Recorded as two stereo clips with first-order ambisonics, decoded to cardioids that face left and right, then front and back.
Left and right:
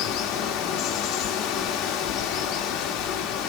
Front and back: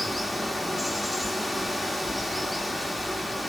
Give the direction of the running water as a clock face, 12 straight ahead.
9 o'clock.